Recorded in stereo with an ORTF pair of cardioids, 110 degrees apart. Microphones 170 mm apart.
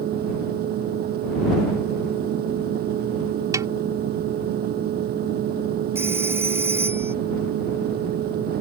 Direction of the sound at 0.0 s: 65° right.